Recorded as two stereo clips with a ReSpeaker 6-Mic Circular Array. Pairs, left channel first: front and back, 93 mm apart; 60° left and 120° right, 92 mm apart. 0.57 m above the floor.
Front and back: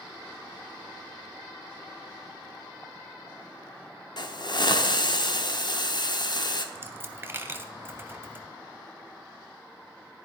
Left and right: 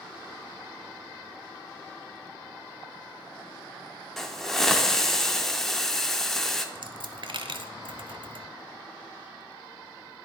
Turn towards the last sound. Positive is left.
turn(degrees=-120)